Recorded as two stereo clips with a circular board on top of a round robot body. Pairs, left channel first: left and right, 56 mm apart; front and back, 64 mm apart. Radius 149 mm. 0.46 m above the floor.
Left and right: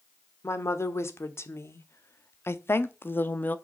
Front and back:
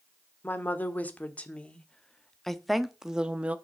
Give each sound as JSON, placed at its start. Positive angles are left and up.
{"t": 0.4, "sound": "a woman speaking", "azimuth_deg": 55, "distance_m": 2.0}